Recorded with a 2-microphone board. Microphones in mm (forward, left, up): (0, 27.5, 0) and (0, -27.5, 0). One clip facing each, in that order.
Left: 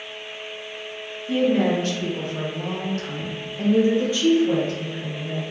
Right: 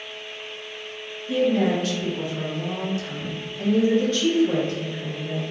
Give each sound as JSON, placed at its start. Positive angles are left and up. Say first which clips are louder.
{"t": 1.3, "sound": "a woman speaking", "louder": "left 1 dB", "side_deg": 35, "distance_m": 1.7}